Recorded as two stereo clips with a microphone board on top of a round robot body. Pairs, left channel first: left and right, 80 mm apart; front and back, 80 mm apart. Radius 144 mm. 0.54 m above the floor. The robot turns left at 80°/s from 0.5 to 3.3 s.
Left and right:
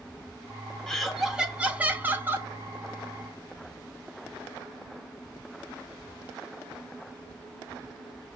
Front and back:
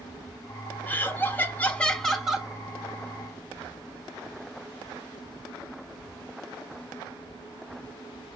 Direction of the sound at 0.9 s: 20° left.